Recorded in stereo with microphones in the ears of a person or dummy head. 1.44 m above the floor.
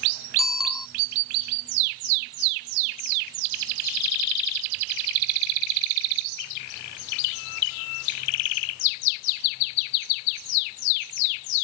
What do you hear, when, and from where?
0.4 s a bicycle bell: 5° right (ahead or behind)